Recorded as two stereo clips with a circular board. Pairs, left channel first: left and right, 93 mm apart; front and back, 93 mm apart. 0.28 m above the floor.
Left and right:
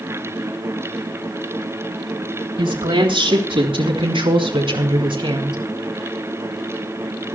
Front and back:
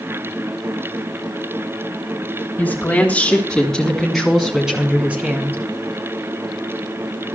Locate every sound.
2.6 s a woman speaking: 70° right, 3.5 m; by 5.6 s 115° right, 2.5 m